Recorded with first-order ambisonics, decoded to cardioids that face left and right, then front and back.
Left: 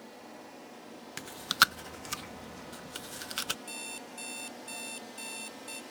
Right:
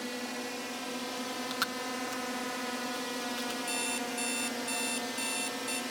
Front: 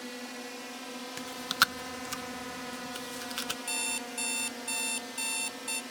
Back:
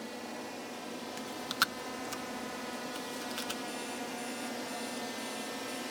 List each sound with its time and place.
0.0 s a drone: 70° right; by 5.9 s 100° right
1.2 s chewing: 65° left
3.7 s an alarm clock: 20° right